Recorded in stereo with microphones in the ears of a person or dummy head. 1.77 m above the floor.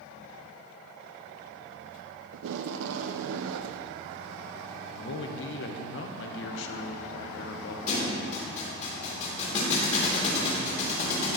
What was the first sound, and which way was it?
Tape being pulled, 70° right (ahead or behind).